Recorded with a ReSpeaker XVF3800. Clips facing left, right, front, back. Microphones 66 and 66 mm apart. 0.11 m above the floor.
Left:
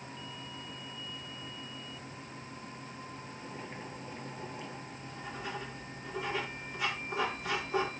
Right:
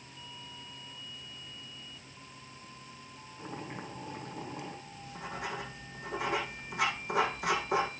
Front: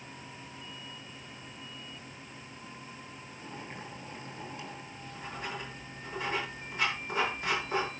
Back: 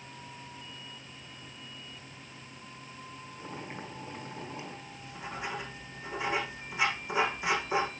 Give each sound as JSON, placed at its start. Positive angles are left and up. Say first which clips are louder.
{"t": 3.4, "sound": "boiling", "louder": "right 5 dB, back 2 dB", "azimuth_deg": -115, "distance_m": 6.5}
{"t": 4.9, "sound": "writing", "louder": "right 1 dB, back 1 dB", "azimuth_deg": -100, "distance_m": 6.5}